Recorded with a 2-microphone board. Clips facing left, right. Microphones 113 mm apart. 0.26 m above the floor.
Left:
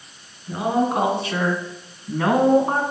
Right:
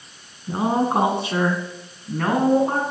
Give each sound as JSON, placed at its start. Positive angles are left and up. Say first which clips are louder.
{"t": 0.5, "sound": "a woman speaking", "louder": "even", "side_deg": -40, "distance_m": 3.5}